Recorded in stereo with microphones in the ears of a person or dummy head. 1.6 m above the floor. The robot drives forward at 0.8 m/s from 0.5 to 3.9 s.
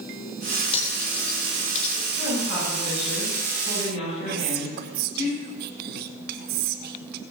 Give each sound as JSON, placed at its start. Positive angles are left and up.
{"t": 0.7, "sound": "cutlery clinking", "side_deg": 30, "distance_m": 4.0}
{"t": 2.1, "sound": "a woman speaking", "side_deg": 50, "distance_m": 10.0}
{"t": 4.3, "sound": "whispering", "side_deg": -55, "distance_m": 1.0}